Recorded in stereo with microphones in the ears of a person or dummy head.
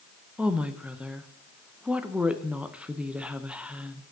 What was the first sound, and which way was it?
A woman speaking, 5° right (ahead or behind).